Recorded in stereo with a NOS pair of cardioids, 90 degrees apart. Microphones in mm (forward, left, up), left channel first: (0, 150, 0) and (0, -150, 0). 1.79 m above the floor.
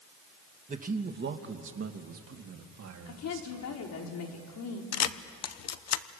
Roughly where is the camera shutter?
Ahead left.